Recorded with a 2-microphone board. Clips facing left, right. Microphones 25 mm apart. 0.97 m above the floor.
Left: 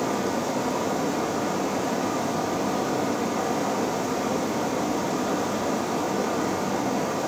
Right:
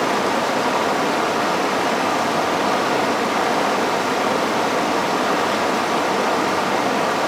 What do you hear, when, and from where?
0.0 s running water: 75° right (ahead or behind), 0.8 m